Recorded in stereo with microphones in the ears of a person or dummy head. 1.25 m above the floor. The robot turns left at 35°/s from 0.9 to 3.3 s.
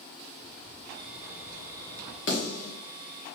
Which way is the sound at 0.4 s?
70° left.